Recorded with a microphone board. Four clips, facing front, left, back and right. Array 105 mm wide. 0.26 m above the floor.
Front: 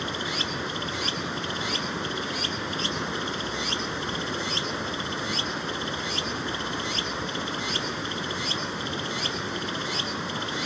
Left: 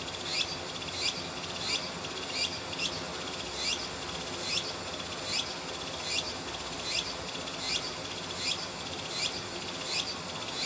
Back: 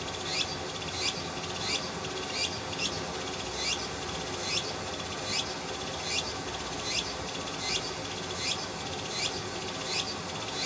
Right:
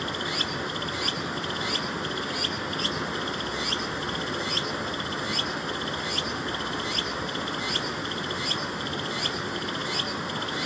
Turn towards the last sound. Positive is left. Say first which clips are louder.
# right 9 dB, front 5 dB
turn(degrees=-40)